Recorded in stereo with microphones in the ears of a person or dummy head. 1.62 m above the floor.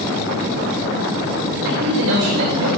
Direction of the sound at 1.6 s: 75° right (ahead or behind).